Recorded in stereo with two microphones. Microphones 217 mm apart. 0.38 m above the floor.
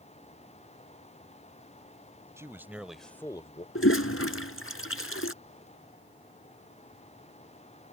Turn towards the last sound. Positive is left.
turn(degrees=80)